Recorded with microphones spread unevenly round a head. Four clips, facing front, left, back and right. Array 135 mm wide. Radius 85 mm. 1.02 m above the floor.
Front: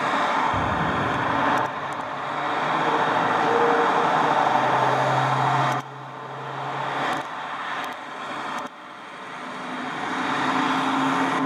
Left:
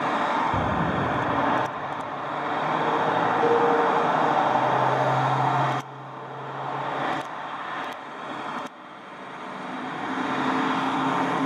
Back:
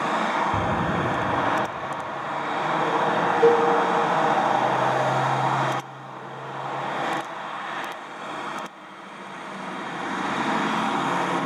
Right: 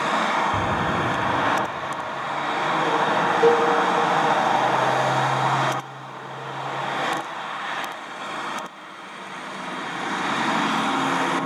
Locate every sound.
0.5 s an explosion: 125° left, 0.8 m
3.4 s a cowbell: 145° right, 1.4 m